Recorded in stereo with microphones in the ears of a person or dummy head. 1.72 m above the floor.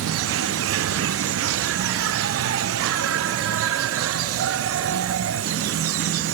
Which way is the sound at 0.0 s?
70° right (ahead or behind).